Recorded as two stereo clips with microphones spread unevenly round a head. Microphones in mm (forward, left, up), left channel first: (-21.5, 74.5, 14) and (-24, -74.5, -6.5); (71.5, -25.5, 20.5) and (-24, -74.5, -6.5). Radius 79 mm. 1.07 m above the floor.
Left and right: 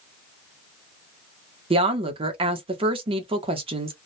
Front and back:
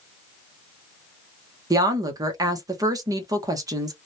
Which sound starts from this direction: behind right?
A woman speaking, at 1.7 s.